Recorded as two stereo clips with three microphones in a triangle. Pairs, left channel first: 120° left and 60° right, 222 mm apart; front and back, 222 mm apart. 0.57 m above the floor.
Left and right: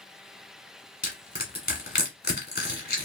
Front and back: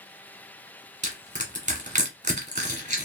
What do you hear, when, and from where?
1.0 s crushing: 135° left, 1.3 m